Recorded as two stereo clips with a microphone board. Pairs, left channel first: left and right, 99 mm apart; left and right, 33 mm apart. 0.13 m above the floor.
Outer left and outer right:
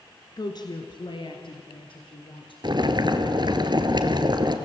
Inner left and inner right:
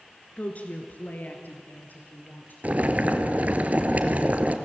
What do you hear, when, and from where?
0.4 s a woman speaking: 40° left (ahead or behind), 1.5 m; by 2.5 s 60° left (ahead or behind), 3.5 m
2.6 s boiling: 50° right (ahead or behind), 1.4 m